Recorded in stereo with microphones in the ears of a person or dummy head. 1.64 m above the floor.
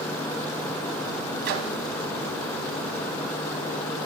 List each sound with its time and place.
1.4 s a microwave: 50° right (ahead or behind), 0.7 m